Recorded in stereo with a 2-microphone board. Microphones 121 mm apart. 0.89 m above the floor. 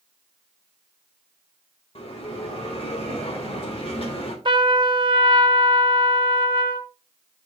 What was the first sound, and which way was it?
A bell, 55° left (ahead or behind).